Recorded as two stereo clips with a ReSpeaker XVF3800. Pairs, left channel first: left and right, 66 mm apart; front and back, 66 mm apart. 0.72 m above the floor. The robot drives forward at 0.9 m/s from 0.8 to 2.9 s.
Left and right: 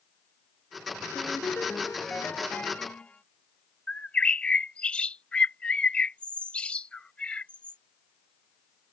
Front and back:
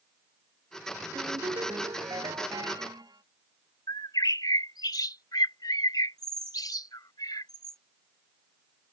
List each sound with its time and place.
1.1 s a ringtone: 160° left; by 3.2 s 165° left
3.9 s a bird: 15° left